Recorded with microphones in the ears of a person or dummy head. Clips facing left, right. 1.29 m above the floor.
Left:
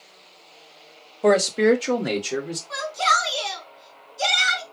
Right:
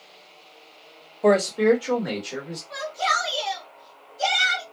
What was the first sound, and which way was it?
A man speaking, centre (ahead or behind).